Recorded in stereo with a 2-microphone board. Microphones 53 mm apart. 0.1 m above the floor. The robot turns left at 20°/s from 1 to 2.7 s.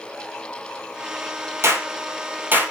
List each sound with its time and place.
1.6 s a clap: 50° right (ahead or behind), 2.5 m; by 2.7 s 35° right (ahead or behind), 2.5 m